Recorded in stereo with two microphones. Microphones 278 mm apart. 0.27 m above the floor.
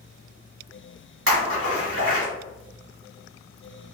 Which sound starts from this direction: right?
A splash, at 1.3 s.